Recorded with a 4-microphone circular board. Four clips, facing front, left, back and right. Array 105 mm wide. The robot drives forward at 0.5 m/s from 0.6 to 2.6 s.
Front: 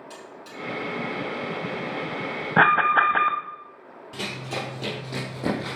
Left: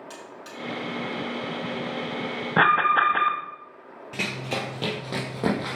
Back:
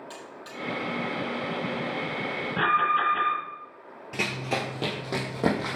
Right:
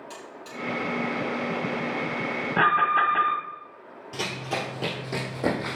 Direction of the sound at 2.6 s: 25° left.